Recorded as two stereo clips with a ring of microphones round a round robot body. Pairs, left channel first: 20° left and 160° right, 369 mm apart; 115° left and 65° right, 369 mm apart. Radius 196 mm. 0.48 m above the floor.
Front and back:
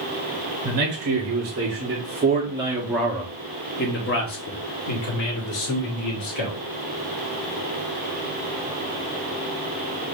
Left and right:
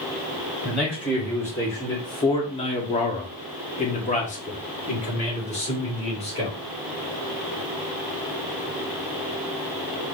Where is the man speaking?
160° right, 2.0 m; by 6.6 s 40° left, 3 m.